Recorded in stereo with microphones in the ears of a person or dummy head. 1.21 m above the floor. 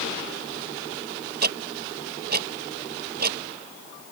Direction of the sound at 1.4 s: 45° right (ahead or behind).